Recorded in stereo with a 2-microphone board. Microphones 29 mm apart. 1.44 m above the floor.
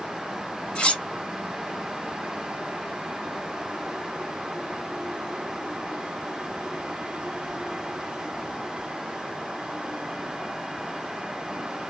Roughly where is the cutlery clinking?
Left.